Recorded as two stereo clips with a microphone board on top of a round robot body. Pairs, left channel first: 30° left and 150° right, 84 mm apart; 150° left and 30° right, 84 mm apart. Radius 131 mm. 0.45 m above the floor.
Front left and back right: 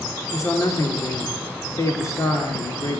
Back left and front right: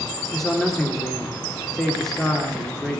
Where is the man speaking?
65° left, 1.9 m.